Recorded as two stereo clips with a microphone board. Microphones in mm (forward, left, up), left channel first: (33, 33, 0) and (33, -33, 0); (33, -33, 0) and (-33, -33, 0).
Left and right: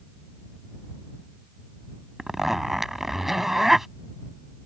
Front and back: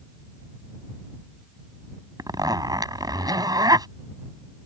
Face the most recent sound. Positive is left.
turn(degrees=-175)